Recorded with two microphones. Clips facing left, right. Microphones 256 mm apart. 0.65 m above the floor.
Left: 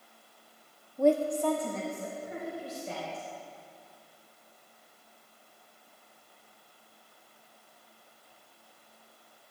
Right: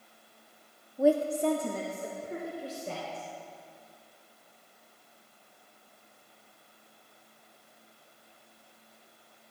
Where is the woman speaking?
Centre (ahead or behind), 0.5 m; by 3.2 s 45° right (ahead or behind), 2.5 m.